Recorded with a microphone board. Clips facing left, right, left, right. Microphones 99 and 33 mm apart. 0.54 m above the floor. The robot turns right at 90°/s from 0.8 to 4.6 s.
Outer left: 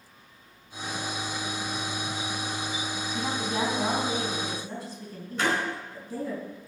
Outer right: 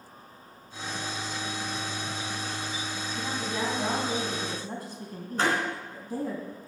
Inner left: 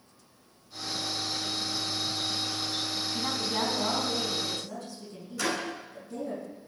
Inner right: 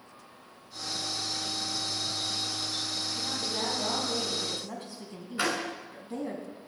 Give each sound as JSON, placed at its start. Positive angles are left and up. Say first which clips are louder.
{"t": 3.1, "sound": "a woman speaking", "louder": "outer left 3 dB, inner left 5 dB", "azimuth_deg": 100, "distance_m": 4.0}
{"t": 5.4, "sound": "a door slam", "louder": "outer right 1 dB, inner right 1 dB", "side_deg": -40, "distance_m": 4.5}